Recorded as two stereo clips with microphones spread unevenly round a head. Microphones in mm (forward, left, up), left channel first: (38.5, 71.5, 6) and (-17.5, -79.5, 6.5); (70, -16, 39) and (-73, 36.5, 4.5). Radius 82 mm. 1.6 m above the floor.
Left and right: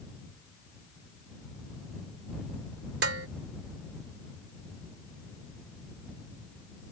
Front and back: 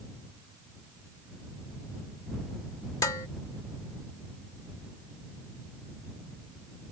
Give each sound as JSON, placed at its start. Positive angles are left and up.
{"t": 3.0, "sound": "dishes clattering", "azimuth_deg": -90}